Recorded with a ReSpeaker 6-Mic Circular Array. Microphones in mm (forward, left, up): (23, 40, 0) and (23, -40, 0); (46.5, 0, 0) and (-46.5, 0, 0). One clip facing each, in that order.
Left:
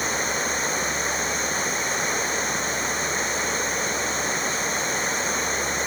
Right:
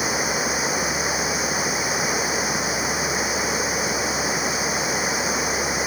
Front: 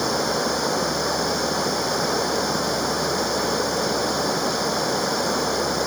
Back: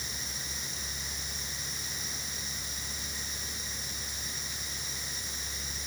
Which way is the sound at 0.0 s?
10° right.